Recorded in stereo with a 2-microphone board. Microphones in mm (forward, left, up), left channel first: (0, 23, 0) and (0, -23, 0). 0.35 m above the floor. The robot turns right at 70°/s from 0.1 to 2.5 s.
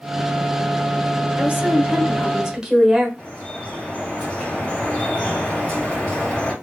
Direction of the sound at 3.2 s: 25° left (ahead or behind).